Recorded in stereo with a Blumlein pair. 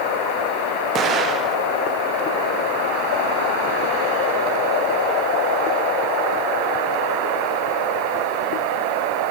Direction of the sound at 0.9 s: 25° right.